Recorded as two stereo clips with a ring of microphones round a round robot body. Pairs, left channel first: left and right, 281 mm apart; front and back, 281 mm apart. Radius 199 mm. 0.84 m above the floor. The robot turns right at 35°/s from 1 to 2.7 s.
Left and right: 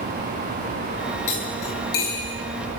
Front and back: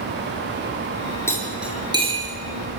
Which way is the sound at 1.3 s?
80° left.